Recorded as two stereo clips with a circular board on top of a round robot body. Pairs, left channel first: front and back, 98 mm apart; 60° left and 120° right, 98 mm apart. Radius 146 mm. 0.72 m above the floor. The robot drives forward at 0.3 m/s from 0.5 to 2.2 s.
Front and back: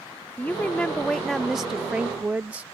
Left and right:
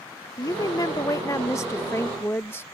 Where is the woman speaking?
65° left; by 2.6 s 115° left.